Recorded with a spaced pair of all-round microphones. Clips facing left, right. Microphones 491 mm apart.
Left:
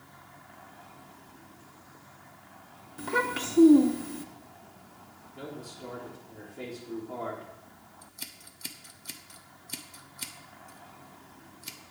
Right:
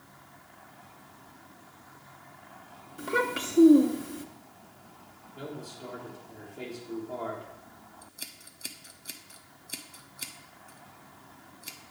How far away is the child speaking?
About 0.9 m.